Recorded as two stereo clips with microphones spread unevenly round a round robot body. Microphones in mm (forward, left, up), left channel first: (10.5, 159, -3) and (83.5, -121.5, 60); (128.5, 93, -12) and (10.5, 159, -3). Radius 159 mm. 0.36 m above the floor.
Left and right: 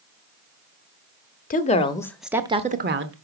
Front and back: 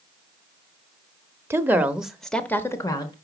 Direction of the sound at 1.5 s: 80° left.